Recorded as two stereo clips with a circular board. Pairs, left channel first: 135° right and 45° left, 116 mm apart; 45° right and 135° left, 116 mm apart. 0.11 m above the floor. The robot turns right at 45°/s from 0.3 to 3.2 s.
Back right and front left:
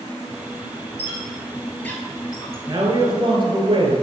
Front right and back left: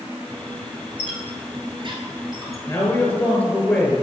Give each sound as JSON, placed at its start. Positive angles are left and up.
{"t": 1.0, "sound": "a squeak", "azimuth_deg": 115, "distance_m": 1.3}
{"t": 2.7, "sound": "a man speaking", "azimuth_deg": 5, "distance_m": 1.5}